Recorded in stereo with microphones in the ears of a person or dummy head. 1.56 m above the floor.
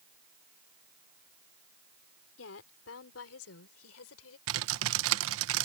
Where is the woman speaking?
75° left (ahead or behind); by 4.4 s 85° left.